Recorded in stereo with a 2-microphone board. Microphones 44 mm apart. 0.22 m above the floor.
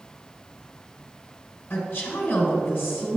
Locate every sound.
1.7 s a woman speaking: 45° left (ahead or behind), 1.6 m